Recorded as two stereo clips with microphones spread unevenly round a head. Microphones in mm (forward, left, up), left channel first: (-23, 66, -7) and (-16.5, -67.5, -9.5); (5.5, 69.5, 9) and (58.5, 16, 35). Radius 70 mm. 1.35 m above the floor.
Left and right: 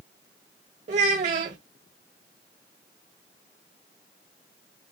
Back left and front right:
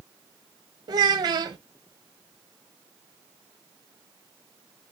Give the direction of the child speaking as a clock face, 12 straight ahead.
2 o'clock.